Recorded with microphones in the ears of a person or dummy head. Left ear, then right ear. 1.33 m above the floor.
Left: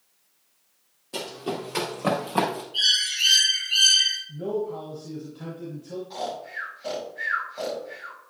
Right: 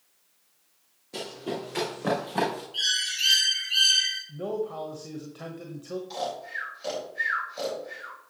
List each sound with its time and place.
1.1 s running footsteps: 20° left (ahead or behind), 3 m
2.7 s a bird: 5° right (ahead or behind), 2.5 m
4.3 s a man speaking: 40° right (ahead or behind), 1.1 m
6.1 s snoring: 30° right (ahead or behind), 4 m